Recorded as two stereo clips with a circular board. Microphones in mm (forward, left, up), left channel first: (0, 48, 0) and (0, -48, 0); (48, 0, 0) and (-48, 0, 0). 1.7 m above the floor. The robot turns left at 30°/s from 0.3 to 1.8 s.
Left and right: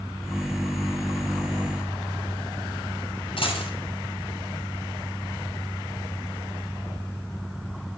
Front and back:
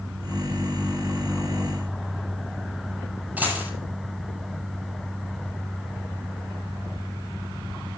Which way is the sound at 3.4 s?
110° left.